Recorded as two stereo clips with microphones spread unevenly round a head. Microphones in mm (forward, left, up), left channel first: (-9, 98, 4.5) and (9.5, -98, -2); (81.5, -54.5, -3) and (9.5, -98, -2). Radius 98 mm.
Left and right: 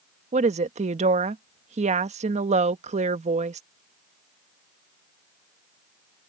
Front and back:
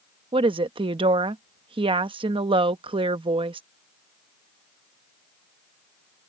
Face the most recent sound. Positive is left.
turn(degrees=-140)